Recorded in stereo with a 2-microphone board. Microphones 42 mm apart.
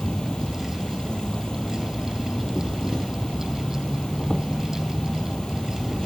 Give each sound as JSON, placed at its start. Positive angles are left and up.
{"t": 0.0, "sound": "an insect", "side_deg": 20}